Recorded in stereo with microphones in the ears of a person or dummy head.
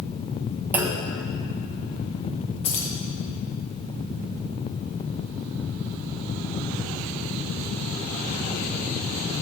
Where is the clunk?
5° right (ahead or behind), 0.5 m.